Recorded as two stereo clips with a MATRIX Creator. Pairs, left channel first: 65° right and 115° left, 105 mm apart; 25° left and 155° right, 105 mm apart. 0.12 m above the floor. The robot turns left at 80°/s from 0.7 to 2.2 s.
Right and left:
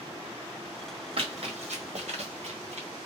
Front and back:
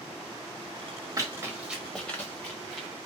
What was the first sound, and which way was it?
Running footsteps, 145° left.